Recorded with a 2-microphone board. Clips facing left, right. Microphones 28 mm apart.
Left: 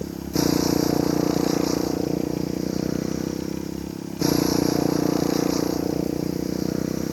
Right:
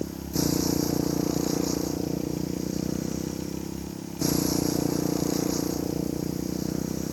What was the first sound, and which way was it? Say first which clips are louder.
A motorcycle: left 4 dB; 25° left (ahead or behind).